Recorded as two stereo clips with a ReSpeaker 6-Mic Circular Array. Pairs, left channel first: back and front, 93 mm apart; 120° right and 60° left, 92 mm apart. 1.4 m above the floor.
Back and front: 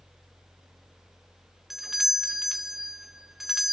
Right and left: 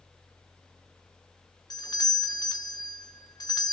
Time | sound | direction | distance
1.7 | a doorbell | 85° right | 1.5 m